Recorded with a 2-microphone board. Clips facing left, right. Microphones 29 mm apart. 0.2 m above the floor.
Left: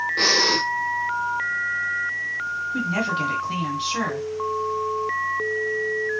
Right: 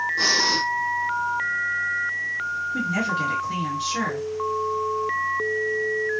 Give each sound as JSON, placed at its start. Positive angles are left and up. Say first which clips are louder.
{"t": 0.2, "sound": "breathing", "louder": "left 3 dB", "side_deg": 80, "distance_m": 0.7}
{"t": 2.7, "sound": "a woman speaking", "louder": "left 1 dB", "side_deg": 40, "distance_m": 2.0}